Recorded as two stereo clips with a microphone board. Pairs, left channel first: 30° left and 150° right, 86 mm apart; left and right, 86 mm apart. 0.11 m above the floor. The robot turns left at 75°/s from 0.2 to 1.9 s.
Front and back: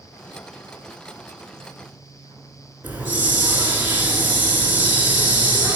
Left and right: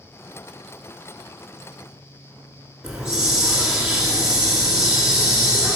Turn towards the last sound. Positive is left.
turn(degrees=-160)